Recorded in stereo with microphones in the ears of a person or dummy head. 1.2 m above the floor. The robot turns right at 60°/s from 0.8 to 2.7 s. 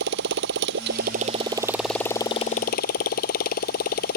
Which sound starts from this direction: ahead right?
A motorcycle, at 0.0 s.